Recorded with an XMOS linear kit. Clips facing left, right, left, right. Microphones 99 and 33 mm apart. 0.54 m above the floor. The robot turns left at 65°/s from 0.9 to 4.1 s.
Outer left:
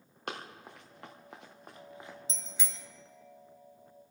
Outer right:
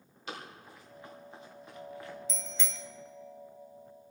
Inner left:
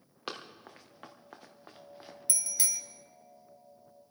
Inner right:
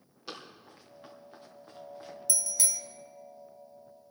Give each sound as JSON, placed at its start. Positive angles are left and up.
{"t": 0.3, "sound": "running footsteps", "side_deg": 60, "distance_m": 3.5}
{"t": 2.3, "sound": "a bicycle bell", "side_deg": 35, "distance_m": 2.0}